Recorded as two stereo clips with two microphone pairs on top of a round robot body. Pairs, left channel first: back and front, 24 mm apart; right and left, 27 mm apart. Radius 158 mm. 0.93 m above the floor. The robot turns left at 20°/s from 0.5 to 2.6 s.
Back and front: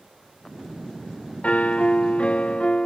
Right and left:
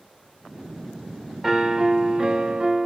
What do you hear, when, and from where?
1.4 s a piano: 170° left, 1.2 m; by 2.9 s 145° left, 1.2 m